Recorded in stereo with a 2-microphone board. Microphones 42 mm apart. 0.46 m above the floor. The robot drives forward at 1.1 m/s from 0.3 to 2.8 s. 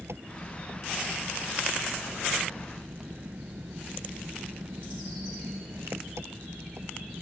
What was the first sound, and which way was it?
An engine running, 70° right (ahead or behind).